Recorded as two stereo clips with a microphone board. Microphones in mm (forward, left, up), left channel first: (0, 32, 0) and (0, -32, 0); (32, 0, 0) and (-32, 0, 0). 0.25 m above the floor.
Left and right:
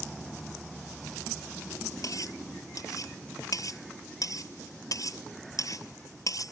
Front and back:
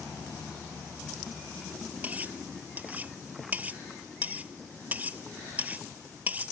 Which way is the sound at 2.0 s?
115° left.